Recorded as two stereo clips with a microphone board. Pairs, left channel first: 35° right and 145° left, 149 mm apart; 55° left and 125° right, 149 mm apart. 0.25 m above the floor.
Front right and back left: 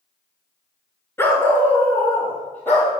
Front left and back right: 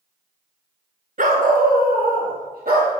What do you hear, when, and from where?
1.2 s a dog barking: 105° right, 1.0 m; by 2.9 s 110° right, 3 m